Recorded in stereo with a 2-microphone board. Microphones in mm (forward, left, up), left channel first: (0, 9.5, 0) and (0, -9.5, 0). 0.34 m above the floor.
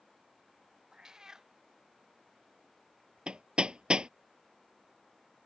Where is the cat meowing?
30° right (ahead or behind).